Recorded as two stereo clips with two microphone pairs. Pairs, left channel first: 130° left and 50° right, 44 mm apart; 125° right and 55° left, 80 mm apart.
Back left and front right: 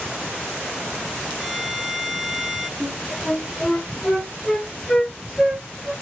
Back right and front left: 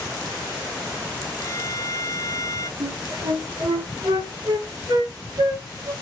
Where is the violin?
120° right, 0.8 m.